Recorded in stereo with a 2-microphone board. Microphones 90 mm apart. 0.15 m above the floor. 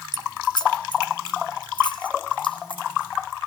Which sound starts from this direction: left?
Keys jangling, at 0.1 s.